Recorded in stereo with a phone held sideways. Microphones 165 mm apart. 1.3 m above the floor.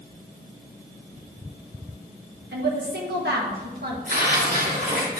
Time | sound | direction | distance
2.5 | a woman speaking | 75° right (ahead or behind) | 1.6 m
4.1 | tearing paper | 65° right (ahead or behind) | 3 m